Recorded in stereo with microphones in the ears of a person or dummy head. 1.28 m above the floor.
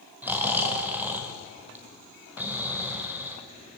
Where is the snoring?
5° right (ahead or behind), 2.0 m.